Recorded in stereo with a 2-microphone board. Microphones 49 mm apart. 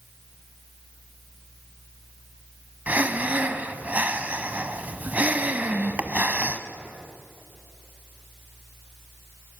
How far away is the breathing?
About 1.3 m.